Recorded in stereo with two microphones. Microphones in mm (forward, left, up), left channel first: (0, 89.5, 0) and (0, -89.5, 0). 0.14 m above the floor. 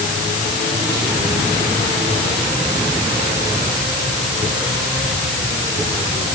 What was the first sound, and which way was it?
Only background noise.